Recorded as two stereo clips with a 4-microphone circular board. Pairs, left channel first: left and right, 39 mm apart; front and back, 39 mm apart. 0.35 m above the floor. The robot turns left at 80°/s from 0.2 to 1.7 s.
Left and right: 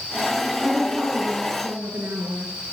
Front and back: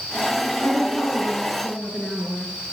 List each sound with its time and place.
0.6 s a woman speaking: 10° left, 6.5 m; by 2.5 s 80° right, 6.5 m